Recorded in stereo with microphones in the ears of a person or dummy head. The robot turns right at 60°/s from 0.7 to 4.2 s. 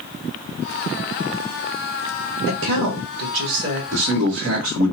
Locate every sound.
2.5 s a woman speaking: 120° right, 1.2 m; by 3.8 s 40° right, 1.2 m
3.9 s a man speaking: 65° right (ahead or behind), 1.1 m; by 4.9 s 50° right (ahead or behind), 1.1 m